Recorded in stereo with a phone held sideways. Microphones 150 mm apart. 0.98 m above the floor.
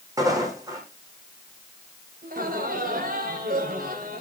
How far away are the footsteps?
About 4 m.